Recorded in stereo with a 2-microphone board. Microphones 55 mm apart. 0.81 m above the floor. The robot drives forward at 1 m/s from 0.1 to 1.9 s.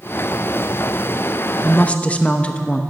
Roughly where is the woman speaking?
Left.